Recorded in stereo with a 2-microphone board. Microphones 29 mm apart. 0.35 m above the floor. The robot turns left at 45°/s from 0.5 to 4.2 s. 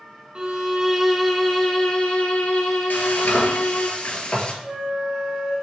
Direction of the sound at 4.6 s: 15° right (ahead or behind).